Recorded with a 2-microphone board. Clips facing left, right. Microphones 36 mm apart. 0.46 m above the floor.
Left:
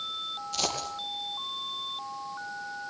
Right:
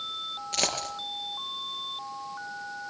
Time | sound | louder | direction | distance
0.5 | a dropped coin | right 2 dB | 60° right (ahead or behind) | 4 m